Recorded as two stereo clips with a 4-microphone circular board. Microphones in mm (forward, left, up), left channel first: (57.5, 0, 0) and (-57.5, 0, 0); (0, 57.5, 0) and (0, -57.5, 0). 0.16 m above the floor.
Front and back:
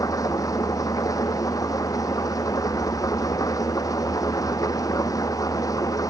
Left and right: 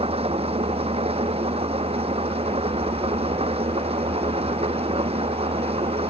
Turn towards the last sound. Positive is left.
turn(degrees=-60)